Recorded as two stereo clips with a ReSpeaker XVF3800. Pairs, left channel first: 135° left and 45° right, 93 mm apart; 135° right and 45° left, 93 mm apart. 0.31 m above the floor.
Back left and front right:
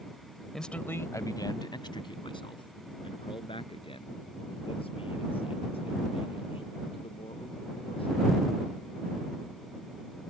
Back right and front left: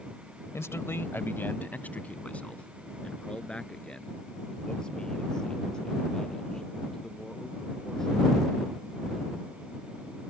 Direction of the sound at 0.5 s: 140° right.